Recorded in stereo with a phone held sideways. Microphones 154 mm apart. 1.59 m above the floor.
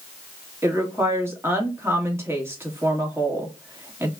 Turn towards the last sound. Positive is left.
turn(degrees=-15)  # may be behind; listen again after turning